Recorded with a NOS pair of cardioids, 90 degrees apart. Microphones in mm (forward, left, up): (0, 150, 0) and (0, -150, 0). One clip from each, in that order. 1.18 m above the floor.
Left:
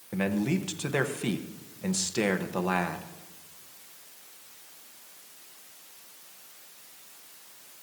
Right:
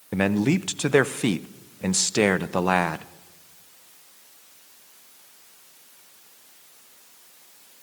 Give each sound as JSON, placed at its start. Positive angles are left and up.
{"t": 0.1, "sound": "a man speaking", "azimuth_deg": -40, "distance_m": 0.6}